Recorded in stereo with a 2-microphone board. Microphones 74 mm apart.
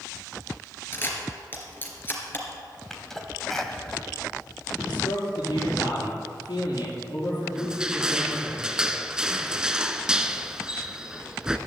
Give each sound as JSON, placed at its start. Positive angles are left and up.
{"t": 0.9, "sound": "a camera shutter", "side_deg": 30, "distance_m": 2.5}
{"t": 2.9, "sound": "a sneeze", "side_deg": 5, "distance_m": 1.8}
{"t": 4.8, "sound": "a man speaking", "side_deg": 75, "distance_m": 5.5}
{"t": 7.5, "sound": "crushing", "side_deg": -10, "distance_m": 0.7}